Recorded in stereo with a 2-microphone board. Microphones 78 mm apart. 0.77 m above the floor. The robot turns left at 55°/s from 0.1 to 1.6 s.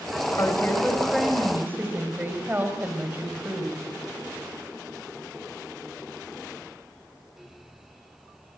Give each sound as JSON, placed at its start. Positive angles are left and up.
{"t": 0.4, "sound": "a woman speaking", "azimuth_deg": 40, "distance_m": 4.0}